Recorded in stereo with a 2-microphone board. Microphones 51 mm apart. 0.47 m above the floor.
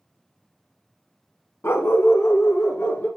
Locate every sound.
1.6 s a dog barking: 55° left (ahead or behind), 0.9 m; by 3.1 s 60° left (ahead or behind), 1.9 m